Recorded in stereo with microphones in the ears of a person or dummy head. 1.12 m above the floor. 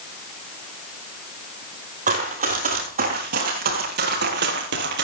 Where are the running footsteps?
40° right (ahead or behind), 2.5 m; by 5.0 s 60° right (ahead or behind), 2 m.